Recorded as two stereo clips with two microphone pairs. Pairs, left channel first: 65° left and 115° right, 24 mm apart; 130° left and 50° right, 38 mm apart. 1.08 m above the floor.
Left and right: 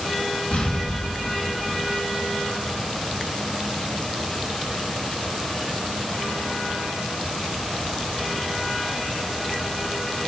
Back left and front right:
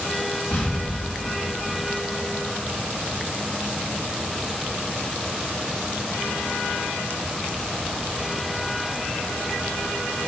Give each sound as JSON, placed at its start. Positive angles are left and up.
{"t": 0.5, "sound": "an explosion", "azimuth_deg": 75, "distance_m": 6.0}